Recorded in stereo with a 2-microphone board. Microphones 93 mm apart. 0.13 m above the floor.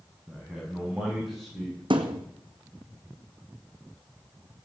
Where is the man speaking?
10° right (ahead or behind), 7 m; by 1.8 s centre (ahead or behind), 7 m.